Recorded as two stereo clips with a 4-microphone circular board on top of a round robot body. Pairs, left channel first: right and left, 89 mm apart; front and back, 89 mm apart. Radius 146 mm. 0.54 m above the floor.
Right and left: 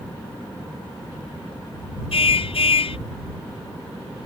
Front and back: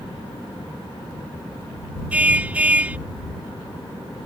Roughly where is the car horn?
Right.